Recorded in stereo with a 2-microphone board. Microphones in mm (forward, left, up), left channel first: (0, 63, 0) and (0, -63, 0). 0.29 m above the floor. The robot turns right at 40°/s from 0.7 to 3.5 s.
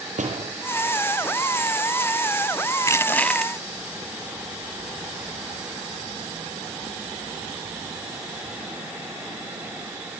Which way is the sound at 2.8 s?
25° left (ahead or behind).